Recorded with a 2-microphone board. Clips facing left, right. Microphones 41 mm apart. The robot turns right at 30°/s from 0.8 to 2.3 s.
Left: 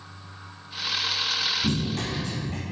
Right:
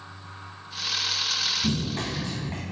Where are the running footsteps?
15° right (ahead or behind), 1.3 m; by 2.6 s 30° right (ahead or behind), 1.3 m.